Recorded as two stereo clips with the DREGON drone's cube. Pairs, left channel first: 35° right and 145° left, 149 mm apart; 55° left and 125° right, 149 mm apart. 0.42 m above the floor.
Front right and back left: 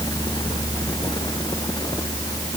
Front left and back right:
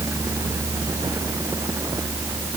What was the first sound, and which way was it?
Only background noise.